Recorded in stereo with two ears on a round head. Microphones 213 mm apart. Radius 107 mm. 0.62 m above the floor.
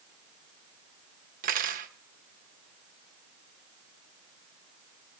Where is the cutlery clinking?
35° right (ahead or behind), 1.1 m.